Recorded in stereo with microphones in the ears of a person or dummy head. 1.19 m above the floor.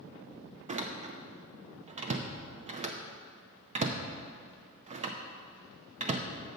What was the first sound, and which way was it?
A door slam, 30° right (ahead or behind).